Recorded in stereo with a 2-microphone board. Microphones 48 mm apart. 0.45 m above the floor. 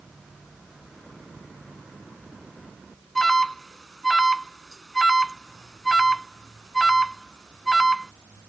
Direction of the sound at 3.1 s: 5° left (ahead or behind).